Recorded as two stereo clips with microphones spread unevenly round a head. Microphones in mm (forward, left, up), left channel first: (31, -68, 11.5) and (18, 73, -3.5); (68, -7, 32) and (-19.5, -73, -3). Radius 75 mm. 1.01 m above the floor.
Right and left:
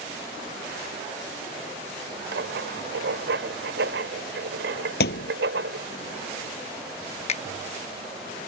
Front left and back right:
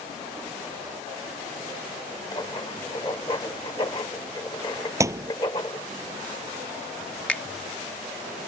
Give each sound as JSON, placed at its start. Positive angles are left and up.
{"t": 2.3, "sound": "writing", "azimuth_deg": 100}
{"t": 5.0, "sound": "a thud", "azimuth_deg": -80}
{"t": 7.3, "sound": "a finger snap", "azimuth_deg": -40}